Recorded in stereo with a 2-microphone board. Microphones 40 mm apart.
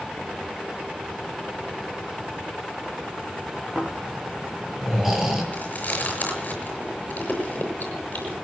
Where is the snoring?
5° right (ahead or behind), 5 m.